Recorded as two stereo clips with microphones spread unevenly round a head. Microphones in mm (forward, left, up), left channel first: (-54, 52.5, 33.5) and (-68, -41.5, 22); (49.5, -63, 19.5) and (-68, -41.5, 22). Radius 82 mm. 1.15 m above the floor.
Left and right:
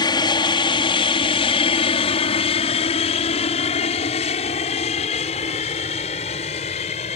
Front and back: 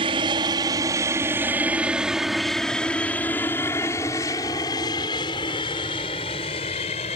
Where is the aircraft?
115° left; by 7.2 s 45° left.